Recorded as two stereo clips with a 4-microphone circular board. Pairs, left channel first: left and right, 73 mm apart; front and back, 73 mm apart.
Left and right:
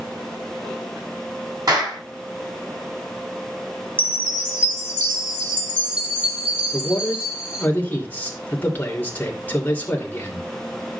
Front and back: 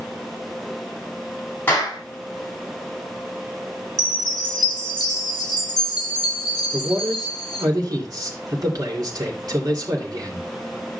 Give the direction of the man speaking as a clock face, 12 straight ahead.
7 o'clock.